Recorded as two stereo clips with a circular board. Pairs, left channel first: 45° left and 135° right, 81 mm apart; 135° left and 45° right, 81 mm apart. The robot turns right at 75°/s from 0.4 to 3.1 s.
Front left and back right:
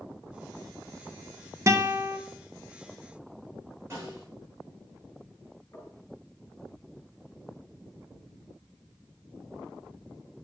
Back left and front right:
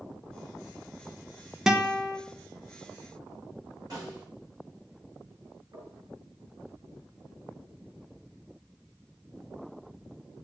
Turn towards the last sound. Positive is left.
turn(degrees=-5)